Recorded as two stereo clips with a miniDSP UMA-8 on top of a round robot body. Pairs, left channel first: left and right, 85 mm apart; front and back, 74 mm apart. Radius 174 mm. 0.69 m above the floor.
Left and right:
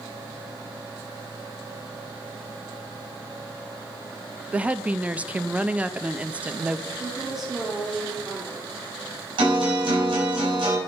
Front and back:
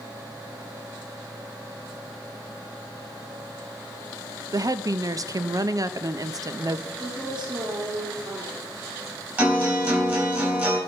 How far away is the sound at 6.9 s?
About 3 m.